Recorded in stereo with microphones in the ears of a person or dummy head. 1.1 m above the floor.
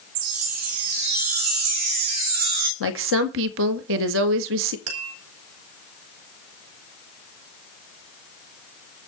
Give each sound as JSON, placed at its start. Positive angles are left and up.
{"t": 0.1, "sound": "a chime", "side_deg": -80, "distance_m": 2.5}
{"t": 2.8, "sound": "a woman speaking", "side_deg": -65, "distance_m": 1.5}
{"t": 4.9, "sound": "tapping", "side_deg": -80, "distance_m": 4.0}